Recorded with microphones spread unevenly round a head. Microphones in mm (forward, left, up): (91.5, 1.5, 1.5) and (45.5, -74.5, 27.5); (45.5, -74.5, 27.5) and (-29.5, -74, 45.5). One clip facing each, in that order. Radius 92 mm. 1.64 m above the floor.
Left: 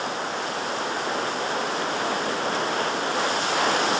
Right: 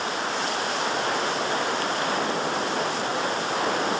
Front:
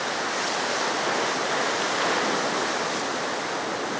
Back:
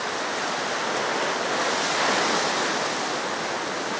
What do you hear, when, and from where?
Only background noise.